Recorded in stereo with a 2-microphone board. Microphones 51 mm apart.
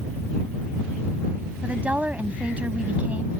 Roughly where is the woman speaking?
Right.